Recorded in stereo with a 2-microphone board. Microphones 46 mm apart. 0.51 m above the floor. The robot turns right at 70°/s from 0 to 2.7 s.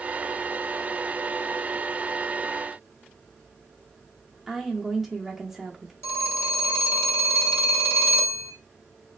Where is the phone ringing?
65° left (ahead or behind), 1.4 m.